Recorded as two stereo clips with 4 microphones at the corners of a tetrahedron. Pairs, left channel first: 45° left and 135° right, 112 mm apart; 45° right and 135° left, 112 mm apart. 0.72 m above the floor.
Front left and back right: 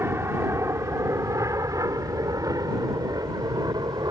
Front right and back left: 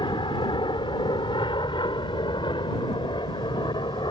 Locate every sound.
0.0 s an aircraft: 75° right; by 4.1 s 85° right